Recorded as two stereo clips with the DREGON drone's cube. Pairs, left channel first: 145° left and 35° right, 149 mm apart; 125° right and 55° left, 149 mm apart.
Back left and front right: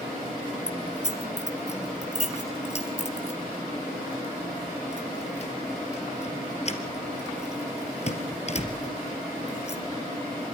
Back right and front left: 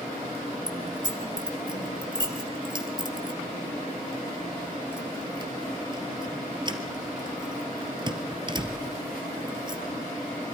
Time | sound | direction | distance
0.7 | keys jangling | 110° left | 2.5 m